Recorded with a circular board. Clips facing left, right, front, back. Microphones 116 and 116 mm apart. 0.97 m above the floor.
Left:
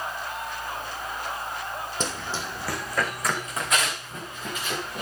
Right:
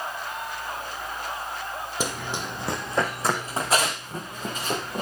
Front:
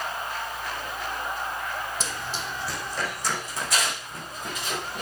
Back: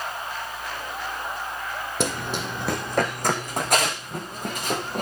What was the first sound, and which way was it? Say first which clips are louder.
Running footsteps: right 3 dB, back 6 dB; 165° right.